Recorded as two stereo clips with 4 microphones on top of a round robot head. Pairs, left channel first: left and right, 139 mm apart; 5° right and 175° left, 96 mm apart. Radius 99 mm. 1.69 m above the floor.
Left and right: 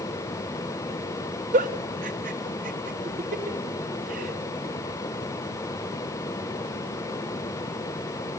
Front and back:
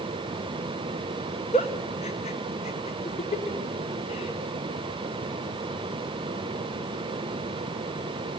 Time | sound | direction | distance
1.5 | a giggle | 45° right | 1.3 m